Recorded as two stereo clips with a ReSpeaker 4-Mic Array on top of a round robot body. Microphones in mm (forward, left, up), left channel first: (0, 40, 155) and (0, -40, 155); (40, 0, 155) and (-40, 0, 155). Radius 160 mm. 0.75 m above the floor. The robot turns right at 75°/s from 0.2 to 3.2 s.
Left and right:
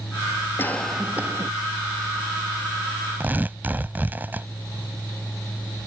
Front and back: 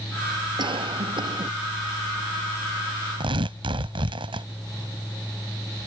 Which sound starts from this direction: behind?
Tearing paper, at 3.2 s.